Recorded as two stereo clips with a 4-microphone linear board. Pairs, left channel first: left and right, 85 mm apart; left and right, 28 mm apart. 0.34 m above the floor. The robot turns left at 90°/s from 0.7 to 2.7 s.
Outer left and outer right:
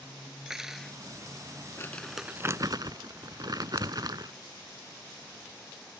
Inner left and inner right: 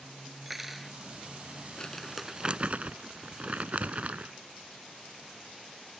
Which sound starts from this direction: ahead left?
Crumpling, at 1.8 s.